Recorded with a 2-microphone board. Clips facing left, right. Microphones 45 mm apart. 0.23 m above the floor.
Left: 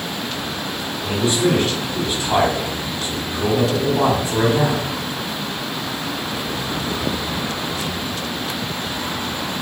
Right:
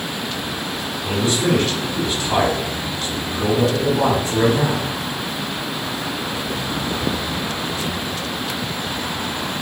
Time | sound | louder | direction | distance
1.0 | a man speaking | left 1 dB | 25° left (ahead or behind) | 1.1 m